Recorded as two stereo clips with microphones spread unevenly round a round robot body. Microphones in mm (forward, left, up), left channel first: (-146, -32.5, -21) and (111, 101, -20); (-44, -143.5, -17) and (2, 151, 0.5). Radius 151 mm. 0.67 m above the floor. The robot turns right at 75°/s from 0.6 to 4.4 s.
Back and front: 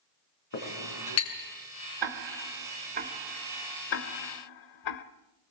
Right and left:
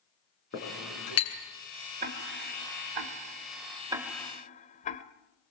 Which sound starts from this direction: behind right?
A clink, at 0.5 s.